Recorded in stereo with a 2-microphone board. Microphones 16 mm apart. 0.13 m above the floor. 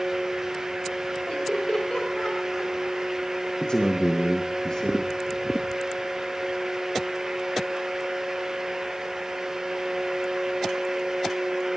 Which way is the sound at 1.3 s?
60° left (ahead or behind).